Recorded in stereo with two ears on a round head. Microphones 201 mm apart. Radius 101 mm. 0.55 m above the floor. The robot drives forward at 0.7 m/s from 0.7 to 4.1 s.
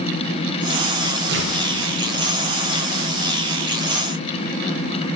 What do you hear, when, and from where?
1.3 s tearing paper: 50° right (ahead or behind), 0.9 m; by 1.6 s 55° right (ahead or behind), 0.8 m